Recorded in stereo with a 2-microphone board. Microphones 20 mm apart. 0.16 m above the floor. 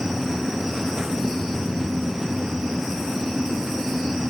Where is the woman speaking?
I don't hear a woman speaking.